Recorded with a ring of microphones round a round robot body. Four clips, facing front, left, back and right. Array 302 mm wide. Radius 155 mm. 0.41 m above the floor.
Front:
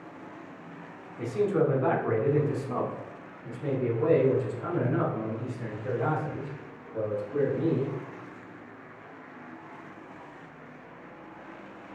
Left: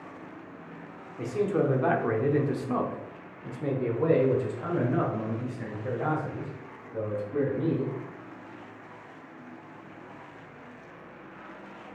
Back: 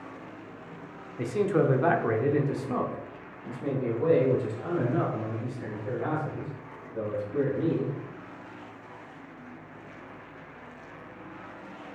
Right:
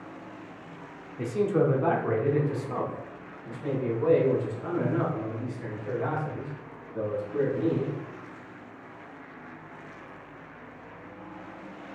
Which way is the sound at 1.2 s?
170° right.